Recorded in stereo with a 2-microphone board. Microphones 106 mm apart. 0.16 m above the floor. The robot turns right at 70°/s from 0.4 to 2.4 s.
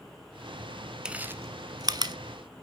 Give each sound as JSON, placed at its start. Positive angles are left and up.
{"t": 1.1, "sound": "chewing", "side_deg": -10, "distance_m": 0.7}